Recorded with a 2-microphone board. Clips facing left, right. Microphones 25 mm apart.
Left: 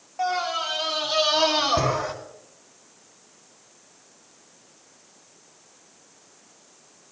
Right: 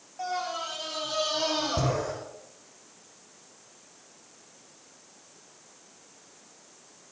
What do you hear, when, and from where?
0.2 s a scream: 45° left (ahead or behind), 1.7 m; by 2.1 s 65° left (ahead or behind), 3.5 m